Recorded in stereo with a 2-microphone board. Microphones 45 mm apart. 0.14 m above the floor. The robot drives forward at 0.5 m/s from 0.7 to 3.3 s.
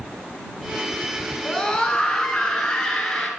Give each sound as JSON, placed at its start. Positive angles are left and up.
{"t": 1.4, "sound": "a scream", "side_deg": 15, "distance_m": 1.4}